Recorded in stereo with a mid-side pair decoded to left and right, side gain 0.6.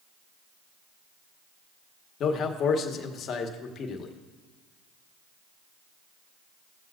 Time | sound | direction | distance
2.2 | a man speaking | 45° left | 1.6 m